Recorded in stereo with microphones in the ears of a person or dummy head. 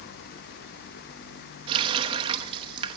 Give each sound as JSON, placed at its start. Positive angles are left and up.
{"t": 1.7, "sound": "a running tap", "side_deg": -30, "distance_m": 0.9}